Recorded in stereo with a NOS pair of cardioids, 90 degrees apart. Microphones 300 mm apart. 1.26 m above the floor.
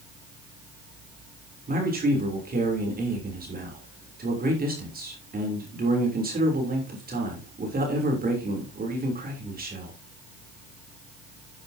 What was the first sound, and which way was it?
A man speaking, 30° right.